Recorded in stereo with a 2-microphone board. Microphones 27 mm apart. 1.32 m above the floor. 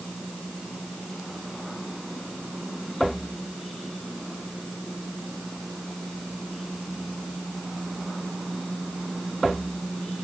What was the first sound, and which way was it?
Only background noise.